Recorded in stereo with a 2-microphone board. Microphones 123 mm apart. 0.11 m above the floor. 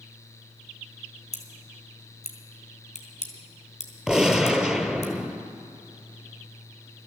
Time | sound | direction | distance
1.3 | scissors | 65° left (ahead or behind) | 2.0 m
4.1 | a gunshot | 5° right (ahead or behind) | 0.8 m